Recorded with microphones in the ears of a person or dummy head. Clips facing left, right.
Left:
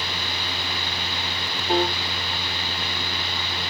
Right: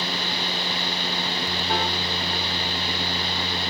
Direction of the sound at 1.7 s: 20° left (ahead or behind).